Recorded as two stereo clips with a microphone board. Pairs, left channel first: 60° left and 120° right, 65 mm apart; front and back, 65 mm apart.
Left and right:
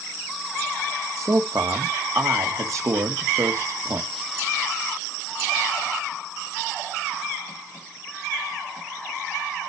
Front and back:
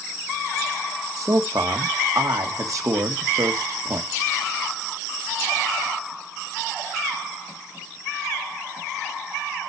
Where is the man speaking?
155° right, 1.8 m.